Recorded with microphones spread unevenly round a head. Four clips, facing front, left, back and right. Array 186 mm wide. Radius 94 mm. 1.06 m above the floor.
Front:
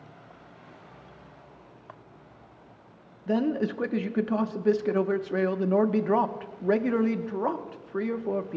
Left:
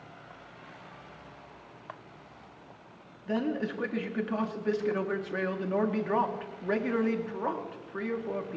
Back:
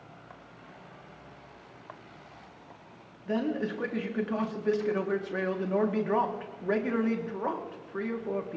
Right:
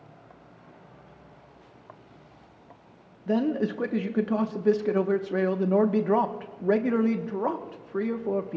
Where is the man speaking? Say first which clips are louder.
Right 5 dB, front 4 dB; 55° right, 1.0 m.